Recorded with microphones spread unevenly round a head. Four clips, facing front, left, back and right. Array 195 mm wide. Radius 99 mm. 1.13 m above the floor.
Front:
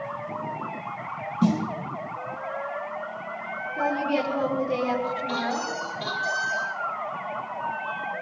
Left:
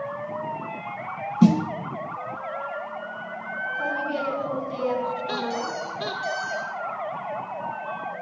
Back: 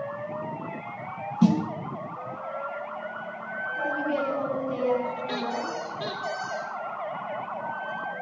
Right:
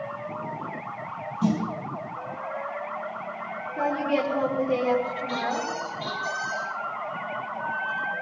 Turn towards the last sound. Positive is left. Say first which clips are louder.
# even, front 2 dB
turn(degrees=110)